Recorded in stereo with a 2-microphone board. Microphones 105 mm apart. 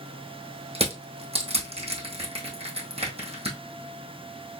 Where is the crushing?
65° right (ahead or behind), 2 m.